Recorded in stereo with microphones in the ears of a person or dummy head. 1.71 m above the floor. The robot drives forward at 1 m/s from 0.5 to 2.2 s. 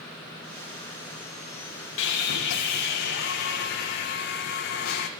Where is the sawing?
60° left (ahead or behind), 1.5 m; by 5.1 s 55° left (ahead or behind), 1.6 m.